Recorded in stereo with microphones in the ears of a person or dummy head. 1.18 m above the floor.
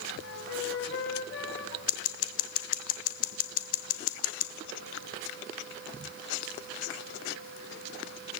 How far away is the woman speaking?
No woman speaking in this recording.